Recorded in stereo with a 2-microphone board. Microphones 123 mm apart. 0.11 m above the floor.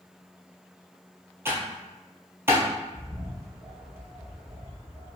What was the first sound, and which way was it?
Typing on a keyboard, 20° right (ahead or behind).